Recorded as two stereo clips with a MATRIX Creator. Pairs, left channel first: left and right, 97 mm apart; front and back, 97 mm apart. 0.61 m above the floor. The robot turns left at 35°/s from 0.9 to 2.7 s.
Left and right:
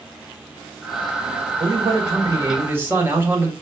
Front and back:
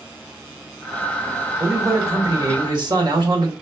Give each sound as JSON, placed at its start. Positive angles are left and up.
{"t": 1.6, "sound": "a man speaking", "azimuth_deg": -115, "distance_m": 1.2}